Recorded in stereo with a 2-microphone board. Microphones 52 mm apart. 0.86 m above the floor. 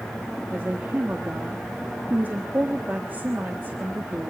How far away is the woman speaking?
About 1.6 m.